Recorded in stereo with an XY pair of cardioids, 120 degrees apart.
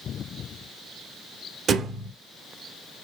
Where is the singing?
No singing in this recording.